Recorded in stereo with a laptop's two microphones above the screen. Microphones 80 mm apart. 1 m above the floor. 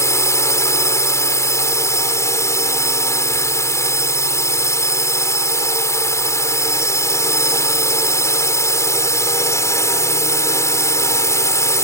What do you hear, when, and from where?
0.0 s a drone: 40° left (ahead or behind)